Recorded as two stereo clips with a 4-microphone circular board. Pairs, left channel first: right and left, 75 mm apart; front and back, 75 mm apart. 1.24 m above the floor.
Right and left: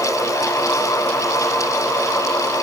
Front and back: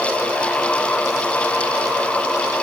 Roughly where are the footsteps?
I don't hear footsteps.